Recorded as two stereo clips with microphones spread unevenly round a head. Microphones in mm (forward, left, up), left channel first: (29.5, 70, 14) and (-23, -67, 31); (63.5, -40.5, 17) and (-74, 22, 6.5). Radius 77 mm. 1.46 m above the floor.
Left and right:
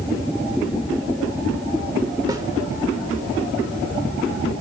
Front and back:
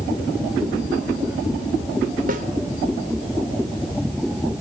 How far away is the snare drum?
About 1.8 m.